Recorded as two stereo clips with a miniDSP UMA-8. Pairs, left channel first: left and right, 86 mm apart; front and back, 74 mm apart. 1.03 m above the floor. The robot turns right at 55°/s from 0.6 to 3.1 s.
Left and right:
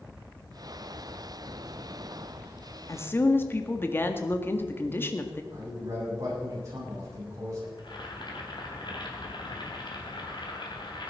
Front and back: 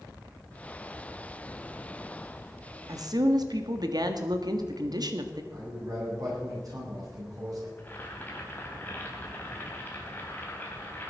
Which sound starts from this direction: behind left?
A woman speaking, at 2.9 s.